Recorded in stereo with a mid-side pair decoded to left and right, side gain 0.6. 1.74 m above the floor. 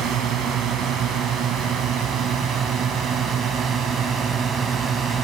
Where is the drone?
55° right; by 5.2 s 35° right.